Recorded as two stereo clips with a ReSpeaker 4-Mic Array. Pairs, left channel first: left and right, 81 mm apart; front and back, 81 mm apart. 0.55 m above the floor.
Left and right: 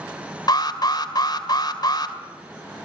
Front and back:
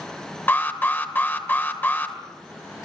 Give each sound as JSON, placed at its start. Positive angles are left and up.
{"t": 0.5, "sound": "an alarm", "azimuth_deg": 65, "distance_m": 2.0}